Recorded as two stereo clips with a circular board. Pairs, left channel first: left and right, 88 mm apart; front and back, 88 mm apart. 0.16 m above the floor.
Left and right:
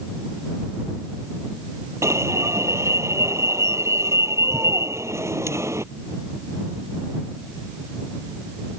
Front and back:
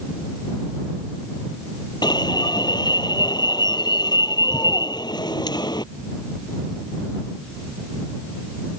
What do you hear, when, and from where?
2.0 s an alarm: 35° right